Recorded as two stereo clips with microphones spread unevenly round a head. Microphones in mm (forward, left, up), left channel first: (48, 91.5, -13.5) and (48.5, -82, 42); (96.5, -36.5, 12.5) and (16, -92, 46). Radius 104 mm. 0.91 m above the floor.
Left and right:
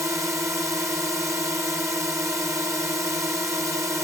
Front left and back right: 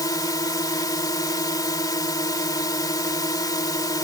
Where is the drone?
10° right.